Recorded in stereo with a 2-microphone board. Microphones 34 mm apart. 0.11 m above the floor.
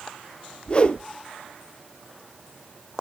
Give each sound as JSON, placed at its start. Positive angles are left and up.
{"t": 0.7, "sound": "a whoosh", "side_deg": 35, "distance_m": 0.9}